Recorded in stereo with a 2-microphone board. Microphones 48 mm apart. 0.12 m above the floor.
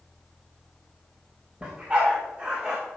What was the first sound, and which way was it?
A dog barking, 25° right (ahead or behind).